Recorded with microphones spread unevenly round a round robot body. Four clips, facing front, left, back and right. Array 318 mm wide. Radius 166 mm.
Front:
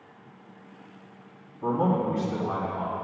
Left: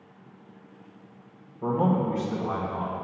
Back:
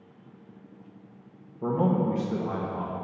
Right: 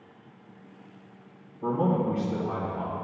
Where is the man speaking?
160° left, 1.5 m.